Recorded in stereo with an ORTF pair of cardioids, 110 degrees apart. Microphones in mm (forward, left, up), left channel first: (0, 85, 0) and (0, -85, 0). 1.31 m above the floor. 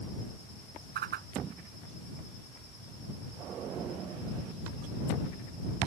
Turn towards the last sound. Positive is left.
turn(degrees=-65)